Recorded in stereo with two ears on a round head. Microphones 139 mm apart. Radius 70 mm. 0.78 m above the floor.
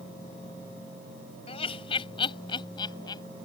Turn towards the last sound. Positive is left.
turn(degrees=25)  # may be behind; listen again after turning